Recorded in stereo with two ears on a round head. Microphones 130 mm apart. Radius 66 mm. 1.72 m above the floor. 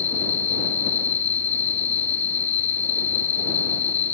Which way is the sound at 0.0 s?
55° left (ahead or behind).